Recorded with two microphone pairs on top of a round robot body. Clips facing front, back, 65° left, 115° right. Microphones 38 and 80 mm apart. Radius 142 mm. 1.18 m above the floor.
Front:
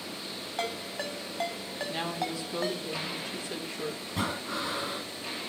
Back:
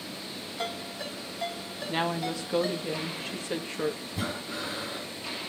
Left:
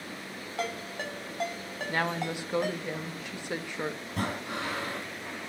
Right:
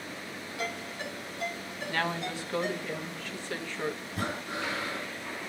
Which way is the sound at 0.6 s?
35° left.